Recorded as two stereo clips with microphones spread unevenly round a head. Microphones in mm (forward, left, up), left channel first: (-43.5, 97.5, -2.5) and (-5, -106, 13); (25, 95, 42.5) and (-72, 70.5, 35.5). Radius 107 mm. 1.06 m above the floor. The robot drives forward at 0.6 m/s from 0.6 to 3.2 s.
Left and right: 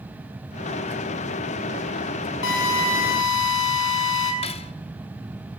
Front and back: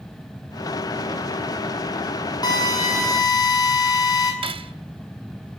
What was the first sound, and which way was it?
A drill, 65° left.